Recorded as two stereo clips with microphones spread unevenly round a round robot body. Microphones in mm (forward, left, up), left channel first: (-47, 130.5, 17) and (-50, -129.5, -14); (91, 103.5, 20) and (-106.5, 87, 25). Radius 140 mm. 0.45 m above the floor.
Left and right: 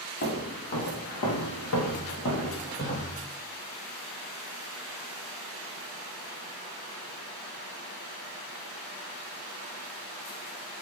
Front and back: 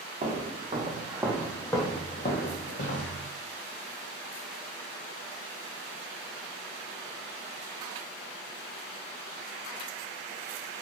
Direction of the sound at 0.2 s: 135° left.